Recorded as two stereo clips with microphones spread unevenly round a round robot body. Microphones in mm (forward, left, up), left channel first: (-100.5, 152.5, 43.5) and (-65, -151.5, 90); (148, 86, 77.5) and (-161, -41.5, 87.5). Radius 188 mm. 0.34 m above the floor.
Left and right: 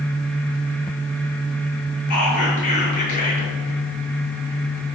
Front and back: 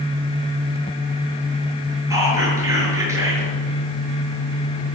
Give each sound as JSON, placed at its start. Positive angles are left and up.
{"t": 2.1, "sound": "whispering", "azimuth_deg": 120, "distance_m": 6.5}